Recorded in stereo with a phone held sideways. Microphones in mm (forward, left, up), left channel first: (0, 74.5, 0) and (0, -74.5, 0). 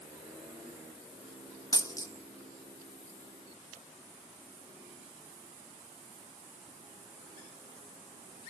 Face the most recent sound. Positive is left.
turn(degrees=25)  # may be behind; listen again after turning